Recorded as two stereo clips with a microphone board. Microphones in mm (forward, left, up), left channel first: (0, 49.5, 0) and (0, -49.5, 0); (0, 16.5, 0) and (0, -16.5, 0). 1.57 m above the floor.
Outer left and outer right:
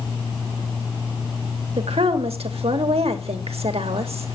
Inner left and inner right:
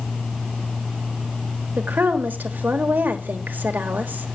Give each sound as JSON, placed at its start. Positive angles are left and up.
{"t": 1.8, "sound": "a woman speaking", "side_deg": -85, "distance_m": 1.5}